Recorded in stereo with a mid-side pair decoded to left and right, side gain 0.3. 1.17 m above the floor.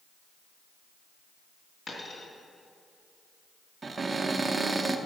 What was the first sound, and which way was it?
A dropped coin, 60° left.